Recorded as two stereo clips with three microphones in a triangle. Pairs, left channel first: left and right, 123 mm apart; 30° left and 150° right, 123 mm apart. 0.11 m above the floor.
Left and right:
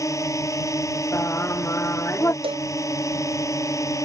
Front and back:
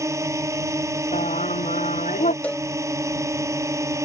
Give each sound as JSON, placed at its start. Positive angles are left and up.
{"t": 0.0, "sound": "a drone", "azimuth_deg": 150}
{"t": 1.1, "sound": "singing", "azimuth_deg": 20}
{"t": 2.4, "sound": "a cowbell", "azimuth_deg": -50}